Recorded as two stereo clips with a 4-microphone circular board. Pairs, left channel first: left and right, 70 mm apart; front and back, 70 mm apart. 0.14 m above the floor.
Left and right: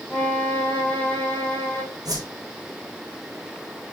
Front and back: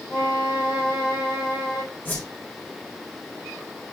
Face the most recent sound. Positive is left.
turn(degrees=-60)